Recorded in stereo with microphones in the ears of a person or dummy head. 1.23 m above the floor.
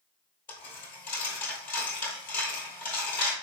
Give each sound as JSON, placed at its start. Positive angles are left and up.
{"t": 0.5, "sound": "a dropped coin", "side_deg": 10, "distance_m": 1.9}